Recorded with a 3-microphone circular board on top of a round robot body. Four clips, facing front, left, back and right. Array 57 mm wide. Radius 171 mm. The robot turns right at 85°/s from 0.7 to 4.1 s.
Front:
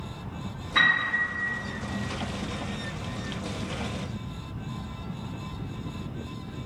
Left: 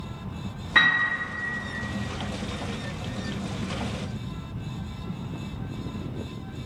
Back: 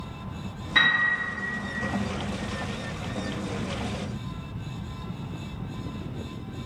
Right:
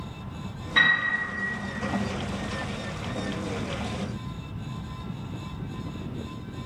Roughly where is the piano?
Left.